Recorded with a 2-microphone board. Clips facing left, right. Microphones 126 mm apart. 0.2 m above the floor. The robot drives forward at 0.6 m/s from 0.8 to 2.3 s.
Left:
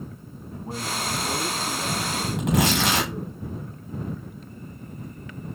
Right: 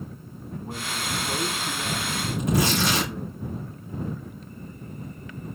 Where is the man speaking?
20° left (ahead or behind), 1.6 m; by 3.4 s 15° left (ahead or behind), 2 m.